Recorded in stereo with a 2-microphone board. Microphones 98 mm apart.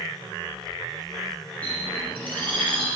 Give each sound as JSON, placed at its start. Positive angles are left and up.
{"t": 1.6, "sound": "a bird", "side_deg": 15, "distance_m": 6.0}